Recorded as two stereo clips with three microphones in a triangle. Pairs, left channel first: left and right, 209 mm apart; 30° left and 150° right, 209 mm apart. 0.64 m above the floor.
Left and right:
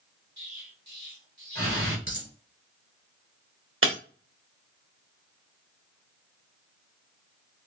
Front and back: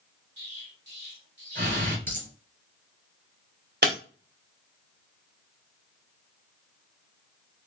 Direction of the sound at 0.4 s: 125° right.